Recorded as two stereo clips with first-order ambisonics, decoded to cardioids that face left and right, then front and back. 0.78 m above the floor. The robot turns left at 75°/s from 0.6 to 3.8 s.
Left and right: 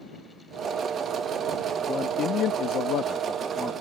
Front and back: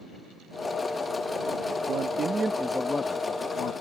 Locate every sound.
1.9 s a man speaking: 150° left; by 3.7 s 15° left